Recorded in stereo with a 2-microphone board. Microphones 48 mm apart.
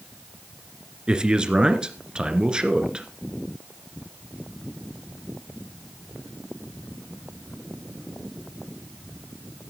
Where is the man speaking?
20° right (ahead or behind), 2 m.